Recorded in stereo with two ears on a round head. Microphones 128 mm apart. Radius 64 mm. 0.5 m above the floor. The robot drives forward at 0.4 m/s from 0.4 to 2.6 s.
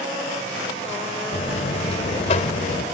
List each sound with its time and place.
1.3 s a buzzer: 40° left (ahead or behind), 2.0 m; by 2.9 s 50° left (ahead or behind), 1.7 m